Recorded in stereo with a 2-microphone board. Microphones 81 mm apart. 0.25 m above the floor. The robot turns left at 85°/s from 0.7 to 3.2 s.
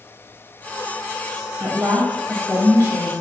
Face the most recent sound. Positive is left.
turn(degrees=105)